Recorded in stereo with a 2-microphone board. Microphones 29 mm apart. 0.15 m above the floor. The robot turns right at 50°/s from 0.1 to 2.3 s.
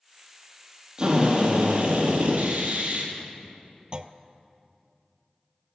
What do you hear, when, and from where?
1.0 s a drill: 150° right, 4 m; by 3.1 s 85° right, 4 m
3.9 s a clunk: 35° right (ahead or behind), 0.5 m